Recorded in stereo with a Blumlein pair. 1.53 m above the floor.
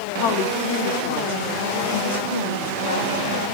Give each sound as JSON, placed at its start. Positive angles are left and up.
{"t": 0.2, "sound": "a woman speaking", "azimuth_deg": 40, "distance_m": 1.4}